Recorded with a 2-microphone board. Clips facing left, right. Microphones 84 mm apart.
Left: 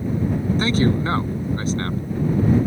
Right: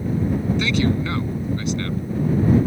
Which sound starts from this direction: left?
A man speaking, at 0.6 s.